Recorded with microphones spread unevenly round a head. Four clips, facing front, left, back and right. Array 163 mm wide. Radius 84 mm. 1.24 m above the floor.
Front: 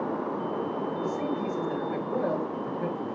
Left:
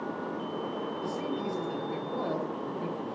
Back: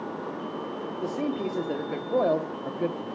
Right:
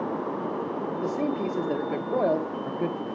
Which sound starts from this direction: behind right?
A man speaking, at 1.0 s.